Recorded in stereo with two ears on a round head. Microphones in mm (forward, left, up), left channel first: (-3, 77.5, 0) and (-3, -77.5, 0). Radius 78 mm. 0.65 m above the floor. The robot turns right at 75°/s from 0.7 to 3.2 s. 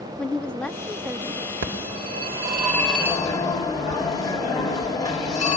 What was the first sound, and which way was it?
A woman speaking, 170° left.